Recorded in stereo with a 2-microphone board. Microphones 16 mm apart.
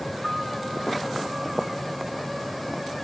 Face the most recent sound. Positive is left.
turn(degrees=-20)  # may be behind; listen again after turning